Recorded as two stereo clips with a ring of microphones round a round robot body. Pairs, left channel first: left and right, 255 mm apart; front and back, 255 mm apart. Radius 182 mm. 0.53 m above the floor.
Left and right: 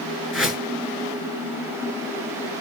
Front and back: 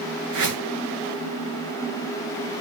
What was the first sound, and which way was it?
A whoosh, straight behind.